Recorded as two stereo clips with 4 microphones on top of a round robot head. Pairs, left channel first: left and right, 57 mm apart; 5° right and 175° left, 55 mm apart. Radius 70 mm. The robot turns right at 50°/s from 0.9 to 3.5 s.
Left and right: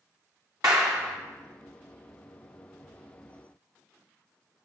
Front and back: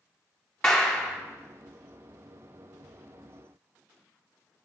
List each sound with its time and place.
0.6 s a clap: 70° right, 0.8 m; by 1.2 s 55° right, 0.8 m